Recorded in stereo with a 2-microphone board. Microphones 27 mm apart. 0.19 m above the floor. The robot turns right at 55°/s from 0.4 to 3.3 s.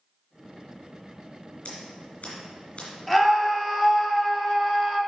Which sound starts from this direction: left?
Scissors, at 1.6 s.